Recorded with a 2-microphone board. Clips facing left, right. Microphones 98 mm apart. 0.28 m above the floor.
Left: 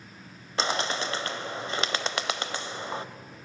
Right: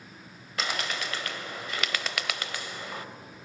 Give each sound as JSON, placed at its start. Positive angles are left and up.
{"t": 0.6, "sound": "a bird", "side_deg": 30, "distance_m": 0.9}